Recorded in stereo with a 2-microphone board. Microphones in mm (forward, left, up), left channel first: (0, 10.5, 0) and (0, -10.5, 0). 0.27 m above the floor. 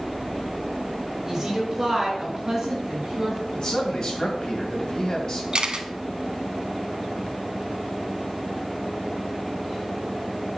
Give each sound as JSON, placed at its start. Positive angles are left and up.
{"t": 1.3, "sound": "a woman speaking", "side_deg": -30, "distance_m": 3.5}
{"t": 3.5, "sound": "a man speaking", "side_deg": 40, "distance_m": 2.0}
{"t": 5.5, "sound": "a camera shutter", "side_deg": -50, "distance_m": 0.6}